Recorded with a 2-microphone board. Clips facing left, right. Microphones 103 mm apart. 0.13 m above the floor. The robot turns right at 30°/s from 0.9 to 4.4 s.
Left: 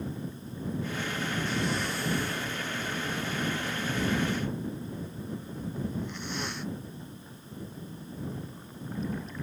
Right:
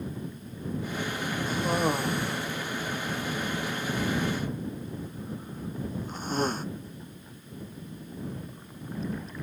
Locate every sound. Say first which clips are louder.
1.5 s a cough: right 8 dB; 45° right (ahead or behind)